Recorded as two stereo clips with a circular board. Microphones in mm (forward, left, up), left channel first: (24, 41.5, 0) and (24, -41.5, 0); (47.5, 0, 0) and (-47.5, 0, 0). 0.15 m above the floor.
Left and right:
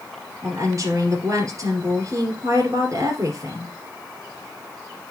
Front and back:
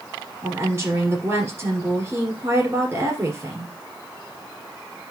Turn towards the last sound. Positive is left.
turn(degrees=-120)